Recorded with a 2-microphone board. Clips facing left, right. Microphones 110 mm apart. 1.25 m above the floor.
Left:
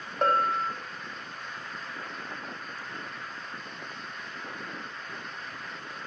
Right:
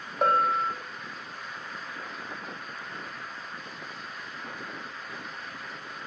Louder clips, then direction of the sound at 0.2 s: Right 1 dB; 5° right (ahead or behind).